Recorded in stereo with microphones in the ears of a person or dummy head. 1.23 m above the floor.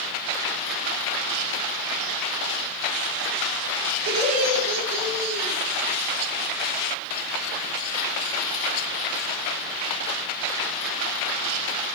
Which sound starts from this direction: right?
Laughter, at 4.1 s.